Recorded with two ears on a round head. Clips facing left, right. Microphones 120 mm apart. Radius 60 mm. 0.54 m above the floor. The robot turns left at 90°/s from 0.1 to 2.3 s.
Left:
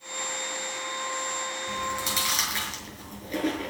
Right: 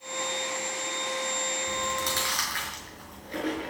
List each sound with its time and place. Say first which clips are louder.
1.7 s chewing: even; 30° right (ahead or behind), 5.5 m; by 3.7 s 30° left (ahead or behind), 5.5 m